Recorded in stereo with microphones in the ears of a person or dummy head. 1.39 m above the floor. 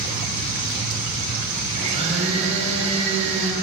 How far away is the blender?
About 8 m.